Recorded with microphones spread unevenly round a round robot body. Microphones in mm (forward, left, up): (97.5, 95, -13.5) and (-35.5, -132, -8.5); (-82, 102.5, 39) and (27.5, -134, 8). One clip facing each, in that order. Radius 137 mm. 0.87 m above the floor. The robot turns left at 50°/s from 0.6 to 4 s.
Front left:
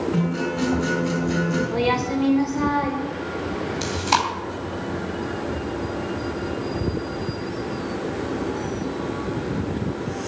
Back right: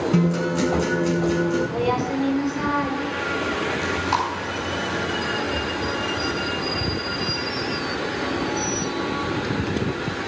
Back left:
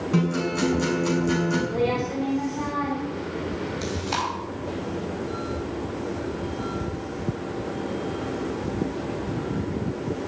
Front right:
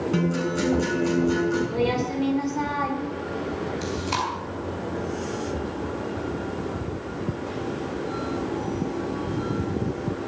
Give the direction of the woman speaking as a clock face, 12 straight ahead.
12 o'clock.